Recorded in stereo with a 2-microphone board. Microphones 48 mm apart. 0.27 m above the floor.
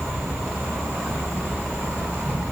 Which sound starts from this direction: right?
An insect, at 0.0 s.